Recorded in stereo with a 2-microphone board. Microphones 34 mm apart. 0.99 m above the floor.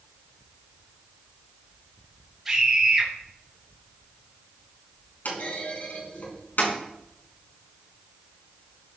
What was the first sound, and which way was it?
A scream, 5° right (ahead or behind).